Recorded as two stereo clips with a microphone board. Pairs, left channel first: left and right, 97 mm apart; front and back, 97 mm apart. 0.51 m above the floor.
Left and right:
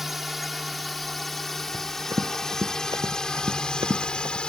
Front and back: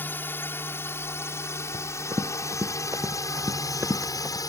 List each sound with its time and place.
0.0 s a drone: 5° right; by 4.5 s 15° left
1.7 s running footsteps: 135° right; by 4.4 s 115° right